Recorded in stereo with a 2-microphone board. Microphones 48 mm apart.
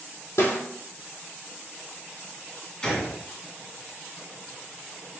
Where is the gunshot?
20° left (ahead or behind), 1.8 m.